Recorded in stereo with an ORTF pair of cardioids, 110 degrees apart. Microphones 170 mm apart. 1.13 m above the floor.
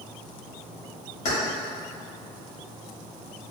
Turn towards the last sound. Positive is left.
turn(degrees=45)